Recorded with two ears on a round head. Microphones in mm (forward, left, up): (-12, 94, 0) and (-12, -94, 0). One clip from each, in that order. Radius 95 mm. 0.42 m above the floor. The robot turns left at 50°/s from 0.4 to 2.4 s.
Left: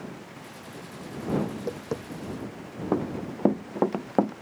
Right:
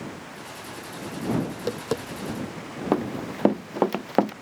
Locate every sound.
1.5 s tapping: 60° right (ahead or behind); by 2.6 s 75° right (ahead or behind)
2.9 s running footsteps: 75° right (ahead or behind); by 4.3 s 70° right (ahead or behind)